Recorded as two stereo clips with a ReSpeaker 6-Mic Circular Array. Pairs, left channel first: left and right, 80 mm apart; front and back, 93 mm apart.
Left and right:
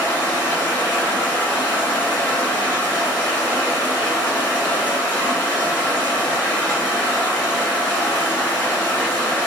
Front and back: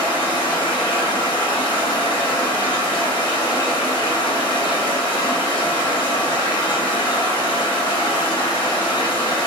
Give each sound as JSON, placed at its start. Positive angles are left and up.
{"t": 0.0, "sound": "running water", "azimuth_deg": 25, "distance_m": 1.2}